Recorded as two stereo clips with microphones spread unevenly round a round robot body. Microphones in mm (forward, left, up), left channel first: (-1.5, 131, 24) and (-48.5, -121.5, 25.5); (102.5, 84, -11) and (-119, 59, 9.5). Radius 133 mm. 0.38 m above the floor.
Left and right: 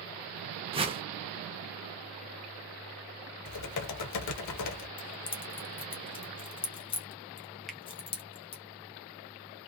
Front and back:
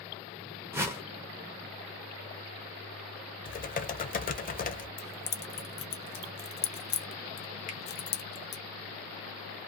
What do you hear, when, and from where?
0.7 s a whoosh: 100° right, 0.6 m
3.5 s typing on a keyboard: 60° left, 0.7 m
5.0 s keys jangling: 15° left, 0.6 m
7.7 s a finger snap: 5° right, 0.7 m